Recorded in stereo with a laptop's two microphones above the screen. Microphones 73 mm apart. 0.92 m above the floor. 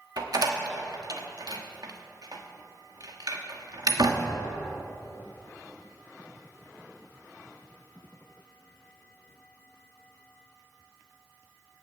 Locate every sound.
0.2 s a door slam: 60° right (ahead or behind), 1.3 m